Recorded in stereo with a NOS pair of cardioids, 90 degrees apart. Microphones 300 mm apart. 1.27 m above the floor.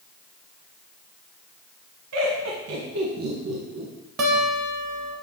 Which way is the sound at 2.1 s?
60° right.